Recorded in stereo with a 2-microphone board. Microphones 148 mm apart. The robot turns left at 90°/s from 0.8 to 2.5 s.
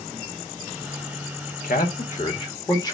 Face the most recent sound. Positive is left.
turn(degrees=25)  # may be behind; listen again after turning